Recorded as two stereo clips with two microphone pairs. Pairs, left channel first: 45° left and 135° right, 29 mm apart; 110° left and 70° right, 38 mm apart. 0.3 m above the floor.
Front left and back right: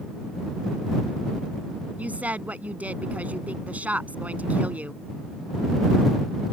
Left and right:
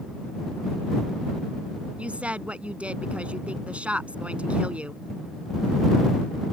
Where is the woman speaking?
125° right.